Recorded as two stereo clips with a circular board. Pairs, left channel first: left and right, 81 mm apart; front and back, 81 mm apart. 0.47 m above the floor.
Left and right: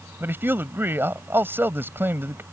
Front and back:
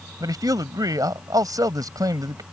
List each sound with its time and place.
0.2 s a man speaking: 150° right